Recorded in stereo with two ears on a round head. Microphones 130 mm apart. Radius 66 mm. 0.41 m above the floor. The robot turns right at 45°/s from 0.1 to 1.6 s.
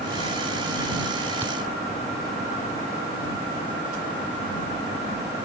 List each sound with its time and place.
1.4 s a thud: 15° right (ahead or behind); by 1.5 s 20° right (ahead or behind)